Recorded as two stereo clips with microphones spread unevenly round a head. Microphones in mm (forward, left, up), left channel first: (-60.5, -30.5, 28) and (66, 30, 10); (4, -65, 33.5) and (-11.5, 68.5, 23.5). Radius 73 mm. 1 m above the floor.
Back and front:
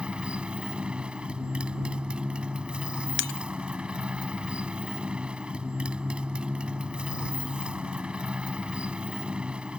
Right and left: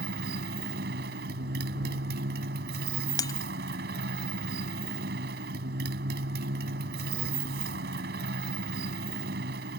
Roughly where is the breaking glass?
Behind right.